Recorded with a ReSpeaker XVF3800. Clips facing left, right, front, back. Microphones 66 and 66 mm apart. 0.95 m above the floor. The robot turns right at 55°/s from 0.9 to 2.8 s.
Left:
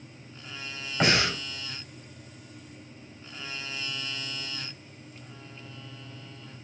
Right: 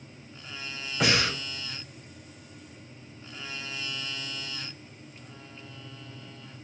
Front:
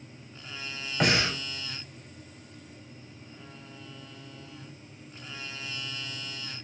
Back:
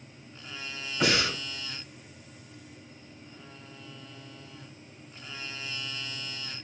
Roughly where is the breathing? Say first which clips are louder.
Left 1 dB, front 1 dB; ahead left.